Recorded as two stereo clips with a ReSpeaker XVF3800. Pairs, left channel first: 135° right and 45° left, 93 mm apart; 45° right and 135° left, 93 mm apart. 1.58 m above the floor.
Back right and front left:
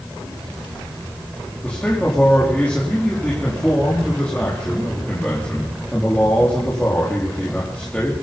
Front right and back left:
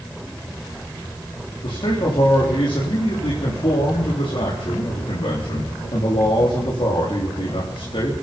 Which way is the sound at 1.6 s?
60° right.